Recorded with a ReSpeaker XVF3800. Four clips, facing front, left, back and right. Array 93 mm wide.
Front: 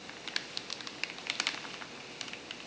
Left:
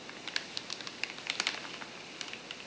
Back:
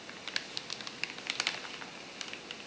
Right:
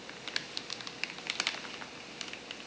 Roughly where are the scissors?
No scissors in this recording.